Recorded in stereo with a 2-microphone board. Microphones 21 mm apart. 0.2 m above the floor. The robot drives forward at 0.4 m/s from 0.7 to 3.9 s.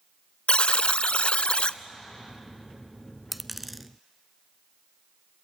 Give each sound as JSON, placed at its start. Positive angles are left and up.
{"t": 0.5, "sound": "a buzzer", "side_deg": 65, "distance_m": 0.5}
{"t": 3.3, "sound": "a dropped coin", "side_deg": -5, "distance_m": 0.5}